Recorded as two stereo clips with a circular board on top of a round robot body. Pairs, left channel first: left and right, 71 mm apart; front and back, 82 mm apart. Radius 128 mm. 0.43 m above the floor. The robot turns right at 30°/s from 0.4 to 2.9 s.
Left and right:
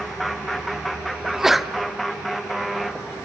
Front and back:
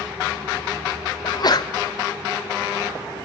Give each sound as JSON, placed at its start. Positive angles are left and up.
{"t": 1.2, "sound": "a sneeze", "azimuth_deg": -15, "distance_m": 1.2}